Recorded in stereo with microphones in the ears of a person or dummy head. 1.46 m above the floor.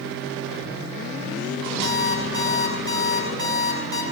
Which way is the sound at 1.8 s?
70° right (ahead or behind).